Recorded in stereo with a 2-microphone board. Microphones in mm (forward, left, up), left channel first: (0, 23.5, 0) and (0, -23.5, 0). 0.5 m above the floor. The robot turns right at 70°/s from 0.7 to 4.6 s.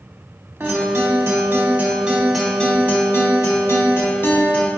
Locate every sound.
0.6 s a guitar: 120° right, 0.9 m; by 4.7 s 155° left, 0.9 m